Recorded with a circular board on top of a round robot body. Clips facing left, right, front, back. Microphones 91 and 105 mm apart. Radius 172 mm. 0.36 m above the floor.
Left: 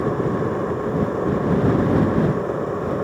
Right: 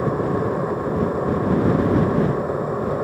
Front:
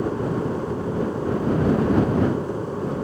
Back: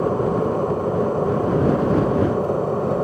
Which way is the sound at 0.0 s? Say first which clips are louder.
Even, back 4 dB; 170° right.